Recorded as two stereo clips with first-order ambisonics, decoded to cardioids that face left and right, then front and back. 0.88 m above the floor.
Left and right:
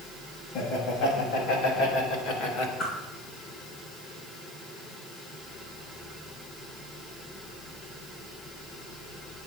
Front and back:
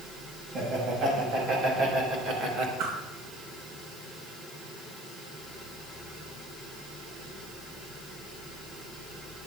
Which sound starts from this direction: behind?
A whoosh, at 2.8 s.